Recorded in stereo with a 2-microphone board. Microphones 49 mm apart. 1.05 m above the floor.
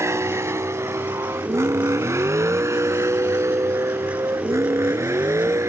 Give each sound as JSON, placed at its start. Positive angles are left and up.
{"t": 0.0, "sound": "a vehicle", "side_deg": -75}